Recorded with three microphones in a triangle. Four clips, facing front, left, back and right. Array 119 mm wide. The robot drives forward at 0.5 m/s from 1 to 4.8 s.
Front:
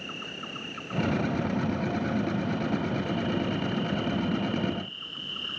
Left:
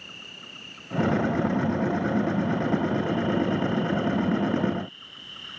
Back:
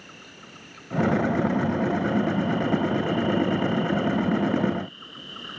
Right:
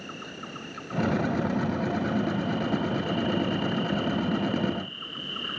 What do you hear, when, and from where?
0.0 s an insect: 55° right; by 5.6 s 105° right